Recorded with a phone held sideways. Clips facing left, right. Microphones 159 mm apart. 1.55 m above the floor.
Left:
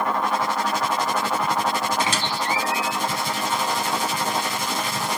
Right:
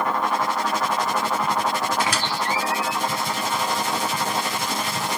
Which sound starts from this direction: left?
A squeak, at 2.0 s.